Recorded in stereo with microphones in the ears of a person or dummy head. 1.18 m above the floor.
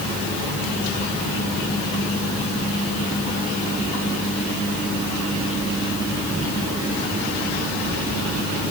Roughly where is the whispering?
I don't hear whispering.